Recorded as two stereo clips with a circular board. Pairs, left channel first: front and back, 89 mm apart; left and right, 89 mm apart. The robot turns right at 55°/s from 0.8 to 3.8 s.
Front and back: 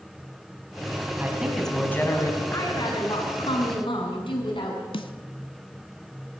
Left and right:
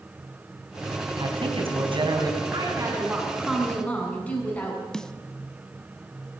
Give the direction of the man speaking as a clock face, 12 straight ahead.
4 o'clock.